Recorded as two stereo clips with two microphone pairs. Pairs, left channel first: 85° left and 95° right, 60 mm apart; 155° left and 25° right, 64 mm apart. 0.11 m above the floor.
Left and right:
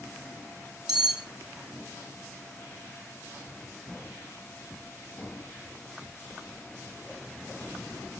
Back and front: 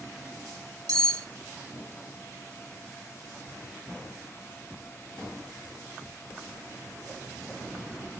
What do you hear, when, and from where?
0.9 s cutlery clinking: 15° right, 2 m